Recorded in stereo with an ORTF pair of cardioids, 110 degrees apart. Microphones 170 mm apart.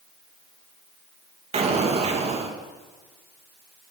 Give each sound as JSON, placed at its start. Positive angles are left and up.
{"t": 1.5, "sound": "an explosion", "azimuth_deg": -40, "distance_m": 2.5}